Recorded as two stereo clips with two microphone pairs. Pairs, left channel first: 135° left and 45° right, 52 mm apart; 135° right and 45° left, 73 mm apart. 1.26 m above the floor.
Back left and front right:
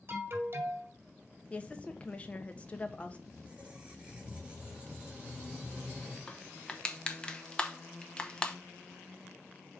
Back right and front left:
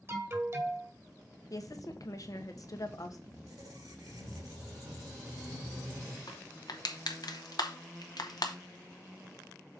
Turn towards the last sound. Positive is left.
turn(degrees=-155)